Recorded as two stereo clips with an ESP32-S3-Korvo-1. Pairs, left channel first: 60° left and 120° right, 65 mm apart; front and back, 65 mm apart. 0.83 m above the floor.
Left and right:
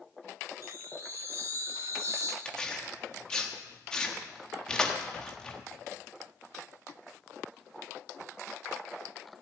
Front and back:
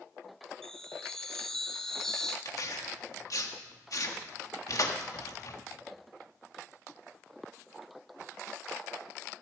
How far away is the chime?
About 1.0 m.